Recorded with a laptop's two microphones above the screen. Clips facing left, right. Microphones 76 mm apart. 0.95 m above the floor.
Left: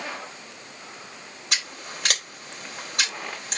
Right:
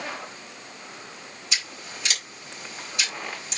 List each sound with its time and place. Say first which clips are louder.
1.5 s scissors: left 2 dB; 60° left (ahead or behind), 3.5 m